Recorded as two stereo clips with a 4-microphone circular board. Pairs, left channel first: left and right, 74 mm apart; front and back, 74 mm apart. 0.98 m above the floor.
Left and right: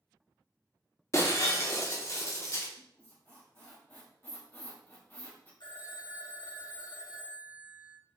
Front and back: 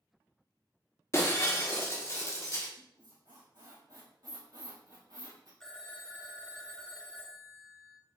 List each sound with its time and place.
1.1 s breaking glass: 45° left, 0.7 m
2.8 s a squeak: 150° left, 1.9 m
5.6 s a phone ringing: 80° left, 0.8 m